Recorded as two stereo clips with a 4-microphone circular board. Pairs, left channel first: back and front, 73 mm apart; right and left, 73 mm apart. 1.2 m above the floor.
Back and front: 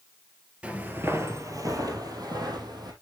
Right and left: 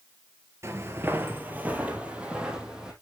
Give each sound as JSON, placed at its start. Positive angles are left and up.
{"t": 0.6, "sound": "footsteps", "azimuth_deg": 70, "distance_m": 1.5}